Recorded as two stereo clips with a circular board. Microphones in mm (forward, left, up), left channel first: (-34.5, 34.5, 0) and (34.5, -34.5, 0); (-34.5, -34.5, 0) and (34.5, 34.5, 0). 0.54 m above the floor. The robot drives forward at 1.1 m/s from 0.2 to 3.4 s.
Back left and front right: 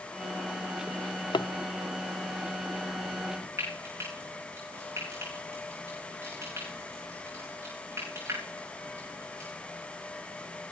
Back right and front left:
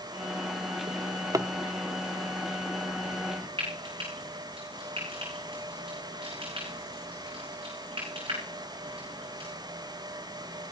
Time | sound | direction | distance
0.9 | a drawer | 50° left | 0.8 m
3.6 | frying | 15° left | 9 m